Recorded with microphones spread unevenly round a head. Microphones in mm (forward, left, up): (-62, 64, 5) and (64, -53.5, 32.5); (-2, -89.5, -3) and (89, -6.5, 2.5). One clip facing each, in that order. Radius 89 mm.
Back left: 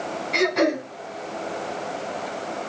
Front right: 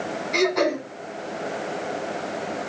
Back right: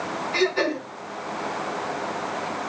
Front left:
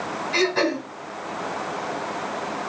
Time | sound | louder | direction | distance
0.3 | throat clearing | even, front left 1 dB | 50° left | 2.5 m